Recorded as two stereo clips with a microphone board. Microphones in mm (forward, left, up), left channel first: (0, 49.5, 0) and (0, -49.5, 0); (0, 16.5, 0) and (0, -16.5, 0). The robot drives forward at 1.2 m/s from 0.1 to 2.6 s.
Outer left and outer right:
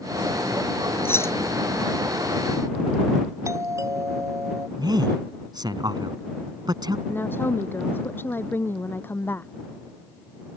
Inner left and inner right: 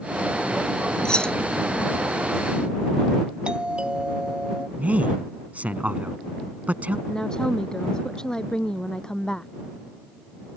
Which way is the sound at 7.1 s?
20° left (ahead or behind).